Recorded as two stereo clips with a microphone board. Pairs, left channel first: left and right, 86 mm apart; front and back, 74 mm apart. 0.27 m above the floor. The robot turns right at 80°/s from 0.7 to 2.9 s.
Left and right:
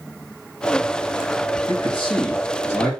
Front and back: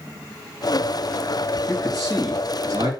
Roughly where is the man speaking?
Ahead left.